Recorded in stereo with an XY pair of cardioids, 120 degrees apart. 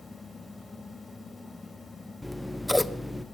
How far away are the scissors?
About 0.5 m.